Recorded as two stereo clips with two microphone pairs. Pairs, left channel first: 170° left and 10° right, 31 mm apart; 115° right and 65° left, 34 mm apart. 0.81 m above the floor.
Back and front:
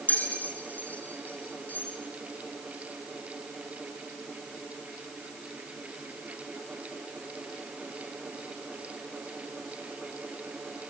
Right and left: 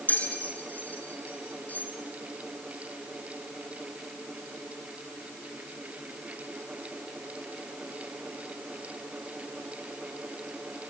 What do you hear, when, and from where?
0.1 s a bell: 160° right, 4 m